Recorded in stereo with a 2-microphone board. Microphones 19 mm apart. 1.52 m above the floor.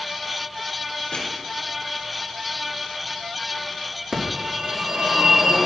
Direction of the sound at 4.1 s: 55° right (ahead or behind).